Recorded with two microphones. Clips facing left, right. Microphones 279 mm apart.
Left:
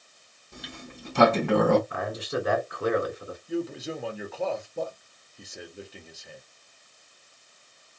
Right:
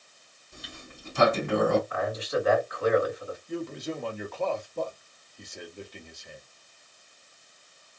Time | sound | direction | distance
0.5 | a sliding door | 75° left (ahead or behind) | 1.0 m
1.9 | a man speaking | 35° left (ahead or behind) | 1.9 m
3.5 | a man speaking | 5° left (ahead or behind) | 1.1 m